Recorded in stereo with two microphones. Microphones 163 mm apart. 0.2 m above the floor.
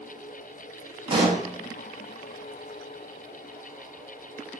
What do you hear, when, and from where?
1.1 s a pop: 35° right (ahead or behind), 0.7 m